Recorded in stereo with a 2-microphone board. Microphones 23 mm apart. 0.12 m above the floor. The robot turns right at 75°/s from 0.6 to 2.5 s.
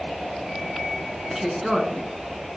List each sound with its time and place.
1.3 s a woman speaking: 5° right (ahead or behind), 1.2 m; by 2.0 s 20° right (ahead or behind), 1.2 m